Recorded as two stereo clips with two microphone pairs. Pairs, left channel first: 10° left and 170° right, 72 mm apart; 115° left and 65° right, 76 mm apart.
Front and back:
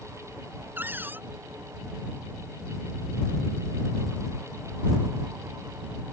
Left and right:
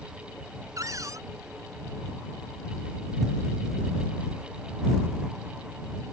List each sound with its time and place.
0.8 s a cupboard door: 105° right